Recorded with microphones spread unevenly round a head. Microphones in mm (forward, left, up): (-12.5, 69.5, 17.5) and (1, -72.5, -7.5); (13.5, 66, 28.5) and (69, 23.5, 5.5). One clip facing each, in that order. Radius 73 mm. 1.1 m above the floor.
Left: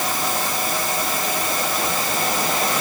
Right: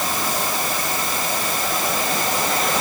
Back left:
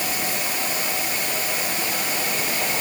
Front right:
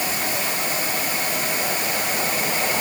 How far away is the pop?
I don't hear a pop.